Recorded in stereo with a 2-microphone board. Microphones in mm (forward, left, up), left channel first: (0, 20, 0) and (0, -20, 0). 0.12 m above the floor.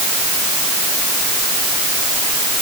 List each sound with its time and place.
Only background noise.